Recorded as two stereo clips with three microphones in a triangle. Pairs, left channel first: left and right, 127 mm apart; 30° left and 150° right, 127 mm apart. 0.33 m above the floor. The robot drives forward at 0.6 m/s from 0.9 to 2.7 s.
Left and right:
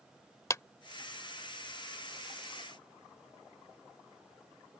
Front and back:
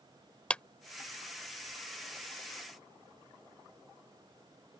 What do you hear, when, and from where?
0.5 s a clap: 95° left